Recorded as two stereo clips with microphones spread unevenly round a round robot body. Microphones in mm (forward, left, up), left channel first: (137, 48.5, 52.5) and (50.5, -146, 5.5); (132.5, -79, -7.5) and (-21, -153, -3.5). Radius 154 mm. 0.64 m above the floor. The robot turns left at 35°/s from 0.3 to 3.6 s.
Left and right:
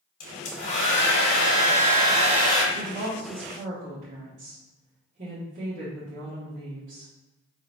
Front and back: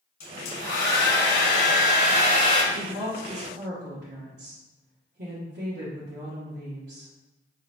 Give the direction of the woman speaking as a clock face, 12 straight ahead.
4 o'clock.